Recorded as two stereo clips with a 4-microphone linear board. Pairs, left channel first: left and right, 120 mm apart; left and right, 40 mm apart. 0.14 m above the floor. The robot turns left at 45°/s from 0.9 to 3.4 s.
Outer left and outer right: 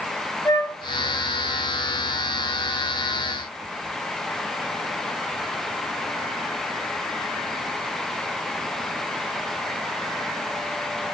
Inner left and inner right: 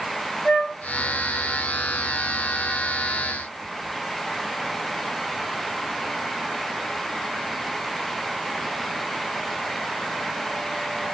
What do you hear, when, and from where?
0.5 s a flute: 30° left (ahead or behind), 0.8 m